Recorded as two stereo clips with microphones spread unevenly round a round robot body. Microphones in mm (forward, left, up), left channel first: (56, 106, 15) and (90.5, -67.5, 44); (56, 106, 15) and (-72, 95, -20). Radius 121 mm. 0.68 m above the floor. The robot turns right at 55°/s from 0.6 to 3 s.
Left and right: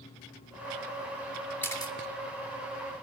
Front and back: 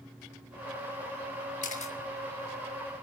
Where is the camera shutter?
25° left, 2.5 m; by 1.9 s 45° left, 2.5 m.